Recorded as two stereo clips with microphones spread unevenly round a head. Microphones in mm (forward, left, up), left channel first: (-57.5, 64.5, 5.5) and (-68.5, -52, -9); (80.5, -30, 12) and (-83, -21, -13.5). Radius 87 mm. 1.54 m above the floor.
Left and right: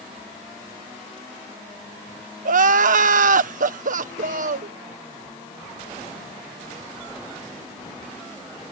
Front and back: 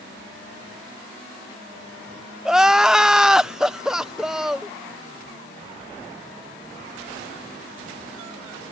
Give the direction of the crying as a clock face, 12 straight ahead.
3 o'clock.